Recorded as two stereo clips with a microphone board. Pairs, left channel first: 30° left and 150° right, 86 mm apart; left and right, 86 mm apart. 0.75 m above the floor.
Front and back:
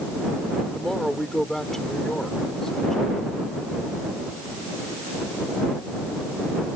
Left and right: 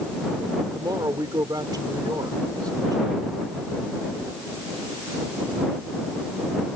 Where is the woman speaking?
55° right.